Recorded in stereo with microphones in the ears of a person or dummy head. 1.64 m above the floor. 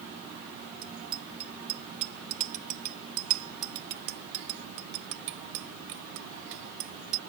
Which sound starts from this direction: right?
A bicycle bell, at 0.8 s.